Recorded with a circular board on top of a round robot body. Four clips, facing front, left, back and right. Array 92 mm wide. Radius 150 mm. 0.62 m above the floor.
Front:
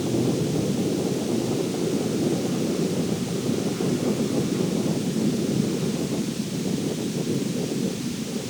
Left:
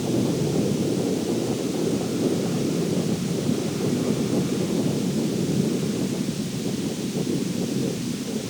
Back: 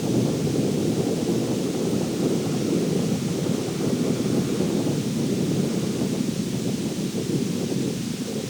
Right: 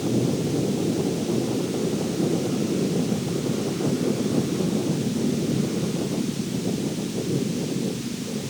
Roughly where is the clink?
I don't hear a clink.